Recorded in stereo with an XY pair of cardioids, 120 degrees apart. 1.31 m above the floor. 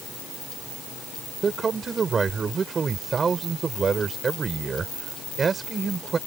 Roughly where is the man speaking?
Ahead right.